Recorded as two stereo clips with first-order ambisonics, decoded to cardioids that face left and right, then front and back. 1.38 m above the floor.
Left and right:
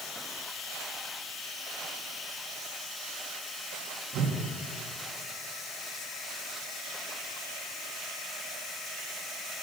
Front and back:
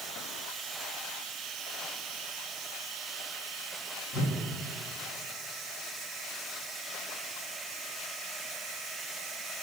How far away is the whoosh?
About 2.0 m.